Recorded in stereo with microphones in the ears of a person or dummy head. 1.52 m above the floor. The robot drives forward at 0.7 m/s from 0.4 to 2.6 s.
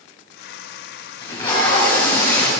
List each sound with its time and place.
1.2 s tape being pulled: 25° left (ahead or behind), 3.5 m; by 2.5 s 20° left (ahead or behind), 4.5 m